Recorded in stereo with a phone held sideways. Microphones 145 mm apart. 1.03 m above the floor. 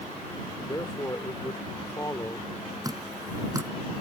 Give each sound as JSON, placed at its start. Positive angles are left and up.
{"t": 0.7, "sound": "a man speaking", "side_deg": 25}
{"t": 2.8, "sound": "dripping", "side_deg": -25}